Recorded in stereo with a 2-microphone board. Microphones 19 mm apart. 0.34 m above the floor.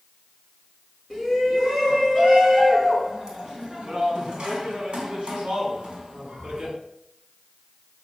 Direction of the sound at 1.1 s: 20° right (ahead or behind).